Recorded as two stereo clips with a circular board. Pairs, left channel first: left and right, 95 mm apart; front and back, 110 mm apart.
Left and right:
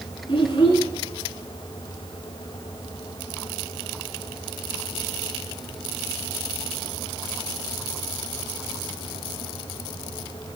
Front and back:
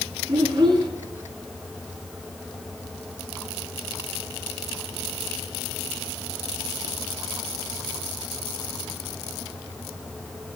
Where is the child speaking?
130° left, 3 m.